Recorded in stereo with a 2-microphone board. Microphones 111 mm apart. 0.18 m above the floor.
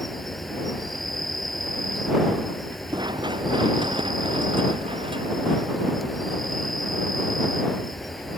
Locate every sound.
0.0 s an insect: centre (ahead or behind)
2.9 s running footsteps: 40° right (ahead or behind); by 7.4 s 55° right (ahead or behind)